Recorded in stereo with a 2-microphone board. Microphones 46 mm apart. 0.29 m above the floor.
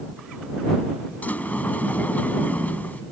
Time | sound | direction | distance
1.2 | a sliding door | 40° left (ahead or behind) | ?